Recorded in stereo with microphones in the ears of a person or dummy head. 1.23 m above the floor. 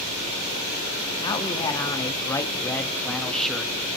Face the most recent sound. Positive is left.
turn(degrees=-5)  # may be behind; listen again after turning